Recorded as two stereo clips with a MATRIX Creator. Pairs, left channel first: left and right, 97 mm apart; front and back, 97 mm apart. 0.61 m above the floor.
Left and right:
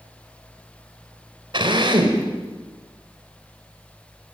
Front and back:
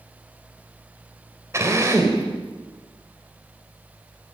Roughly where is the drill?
Behind right.